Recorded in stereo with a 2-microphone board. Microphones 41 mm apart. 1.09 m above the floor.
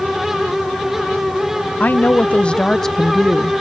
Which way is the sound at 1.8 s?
45° left (ahead or behind).